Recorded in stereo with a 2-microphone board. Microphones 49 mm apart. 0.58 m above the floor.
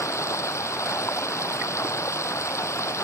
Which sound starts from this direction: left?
Running water, at 0.0 s.